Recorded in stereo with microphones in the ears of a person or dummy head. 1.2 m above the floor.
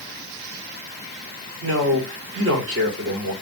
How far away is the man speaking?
About 1.9 m.